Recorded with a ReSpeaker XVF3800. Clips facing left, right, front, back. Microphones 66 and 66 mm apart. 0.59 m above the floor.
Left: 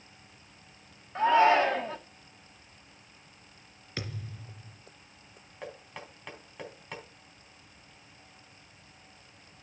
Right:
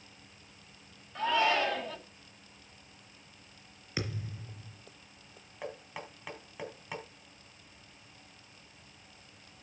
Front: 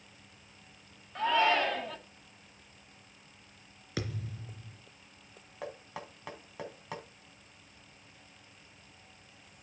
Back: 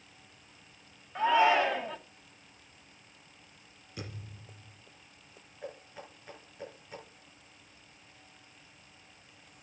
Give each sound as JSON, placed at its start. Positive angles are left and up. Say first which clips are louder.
{"t": 1.1, "sound": "a shout", "louder": "left 7 dB, back 3 dB", "azimuth_deg": 115, "distance_m": 1.1}
{"t": 4.0, "sound": "a thud", "louder": "right 2 dB, front 7 dB", "azimuth_deg": -15, "distance_m": 3.0}
{"t": 5.6, "sound": "knocking", "louder": "right 1 dB, front 3 dB", "azimuth_deg": -5, "distance_m": 3.5}